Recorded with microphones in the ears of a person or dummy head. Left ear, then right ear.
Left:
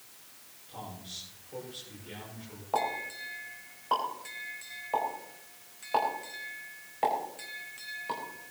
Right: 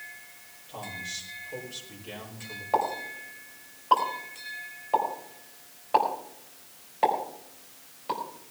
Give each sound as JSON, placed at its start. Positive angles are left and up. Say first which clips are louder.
{"t": 0.7, "sound": "a man speaking", "louder": "right 7 dB", "side_deg": -25, "distance_m": 6.5}
{"t": 2.7, "sound": "a pop", "louder": "right 3 dB", "side_deg": -10, "distance_m": 4.0}